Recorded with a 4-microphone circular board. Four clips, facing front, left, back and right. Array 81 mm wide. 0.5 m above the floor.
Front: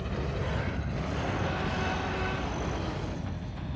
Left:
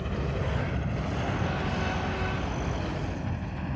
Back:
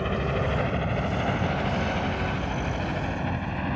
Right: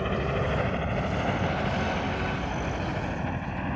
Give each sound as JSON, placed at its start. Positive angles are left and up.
{"t": 0.0, "sound": "a helicopter", "azimuth_deg": -140}